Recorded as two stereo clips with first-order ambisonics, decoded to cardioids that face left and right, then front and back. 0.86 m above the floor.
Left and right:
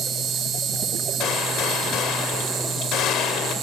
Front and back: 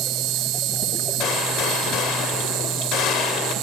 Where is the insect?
150° right, 1.8 m.